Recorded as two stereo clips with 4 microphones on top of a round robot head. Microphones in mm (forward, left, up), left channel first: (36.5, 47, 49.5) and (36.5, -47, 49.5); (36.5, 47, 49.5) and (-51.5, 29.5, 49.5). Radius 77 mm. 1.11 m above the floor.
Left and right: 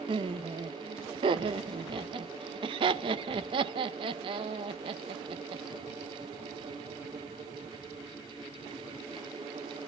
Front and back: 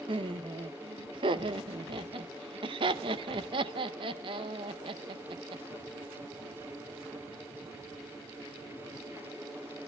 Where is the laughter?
130° right, 0.7 m.